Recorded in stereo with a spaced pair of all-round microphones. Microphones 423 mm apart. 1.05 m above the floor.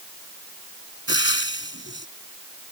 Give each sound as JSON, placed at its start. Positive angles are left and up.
{"t": 1.1, "sound": "frying", "side_deg": 25}